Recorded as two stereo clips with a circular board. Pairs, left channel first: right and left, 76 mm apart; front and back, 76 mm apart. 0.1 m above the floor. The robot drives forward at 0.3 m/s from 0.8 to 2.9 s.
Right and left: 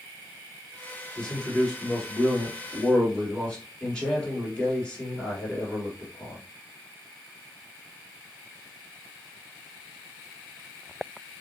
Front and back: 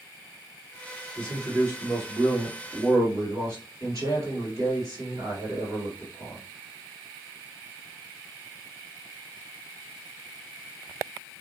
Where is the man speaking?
160° right, 1.7 m; by 6.4 s 165° right, 2 m.